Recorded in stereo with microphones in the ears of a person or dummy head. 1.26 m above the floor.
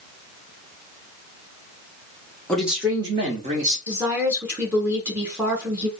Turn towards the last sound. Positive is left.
turn(degrees=-5)  # may be behind; listen again after turning